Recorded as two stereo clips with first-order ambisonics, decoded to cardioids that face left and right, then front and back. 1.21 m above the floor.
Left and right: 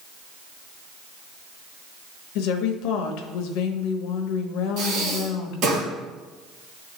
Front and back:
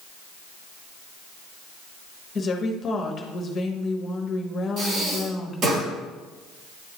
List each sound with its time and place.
2.4 s a woman speaking: 65° left, 0.9 m
4.8 s breathing: 125° right, 3 m